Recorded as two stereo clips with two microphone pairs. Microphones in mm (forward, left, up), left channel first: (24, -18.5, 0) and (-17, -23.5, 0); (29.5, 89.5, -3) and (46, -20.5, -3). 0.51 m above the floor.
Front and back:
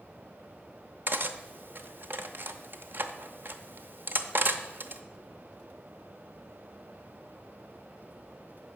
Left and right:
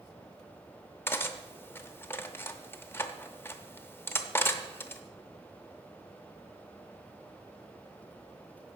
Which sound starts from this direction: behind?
Cutlery clinking, at 1.1 s.